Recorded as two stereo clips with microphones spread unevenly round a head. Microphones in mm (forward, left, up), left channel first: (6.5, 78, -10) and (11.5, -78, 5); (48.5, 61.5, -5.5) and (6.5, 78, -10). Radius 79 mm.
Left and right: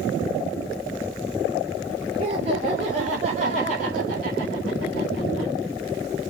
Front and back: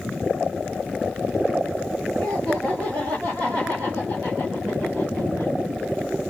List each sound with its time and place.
2.2 s laughter: 145° right, 4 m; by 5.5 s 105° right, 3 m